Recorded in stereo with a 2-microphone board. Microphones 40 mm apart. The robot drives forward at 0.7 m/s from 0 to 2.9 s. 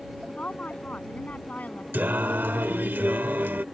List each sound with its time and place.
0.3 s a woman speaking: 40° left (ahead or behind); by 1.8 s 45° left (ahead or behind)
1.9 s singing: 65° right (ahead or behind); by 3.6 s 70° right (ahead or behind)